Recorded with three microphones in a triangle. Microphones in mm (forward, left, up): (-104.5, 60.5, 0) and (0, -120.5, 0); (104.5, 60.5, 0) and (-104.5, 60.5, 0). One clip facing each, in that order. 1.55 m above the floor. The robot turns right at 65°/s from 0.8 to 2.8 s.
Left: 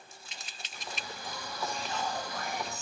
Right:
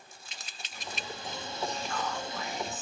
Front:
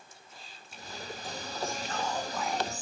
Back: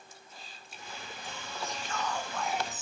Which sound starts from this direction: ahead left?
Whispering, at 1.6 s.